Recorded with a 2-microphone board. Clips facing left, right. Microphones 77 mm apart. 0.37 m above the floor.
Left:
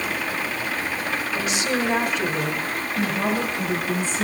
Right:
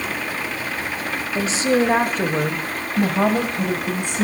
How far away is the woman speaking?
About 1.6 m.